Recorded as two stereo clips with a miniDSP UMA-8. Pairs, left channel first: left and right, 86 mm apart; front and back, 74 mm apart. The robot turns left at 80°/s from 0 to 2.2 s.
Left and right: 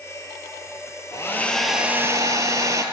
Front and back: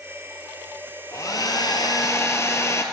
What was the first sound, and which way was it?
A hair dryer, 45° left.